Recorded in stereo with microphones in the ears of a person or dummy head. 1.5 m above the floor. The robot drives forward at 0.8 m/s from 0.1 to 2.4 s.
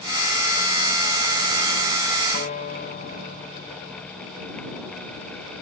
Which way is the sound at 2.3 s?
25° left (ahead or behind).